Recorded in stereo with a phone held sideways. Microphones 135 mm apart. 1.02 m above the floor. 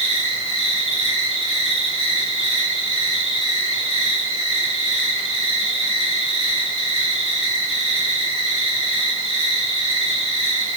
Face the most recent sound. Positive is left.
turn(degrees=-50)  # may be behind; listen again after turning